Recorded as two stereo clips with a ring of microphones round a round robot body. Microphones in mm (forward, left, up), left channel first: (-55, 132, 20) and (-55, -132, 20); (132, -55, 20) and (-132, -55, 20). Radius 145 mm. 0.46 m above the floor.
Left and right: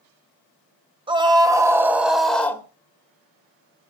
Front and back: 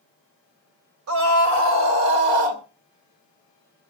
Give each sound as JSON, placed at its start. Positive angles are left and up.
{"t": 1.1, "sound": "a scream", "azimuth_deg": -160, "distance_m": 2.5}